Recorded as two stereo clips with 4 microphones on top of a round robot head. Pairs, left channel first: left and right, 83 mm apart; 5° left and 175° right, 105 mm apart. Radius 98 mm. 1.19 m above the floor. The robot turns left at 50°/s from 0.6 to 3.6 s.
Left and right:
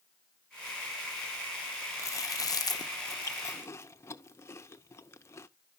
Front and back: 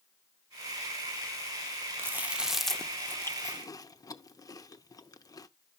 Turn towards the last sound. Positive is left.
turn(degrees=45)